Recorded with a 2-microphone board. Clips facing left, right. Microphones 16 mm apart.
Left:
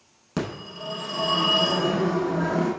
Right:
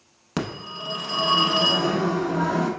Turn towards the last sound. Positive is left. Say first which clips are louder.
# right 1 dB
turn(degrees=-20)  # may be behind; listen again after turning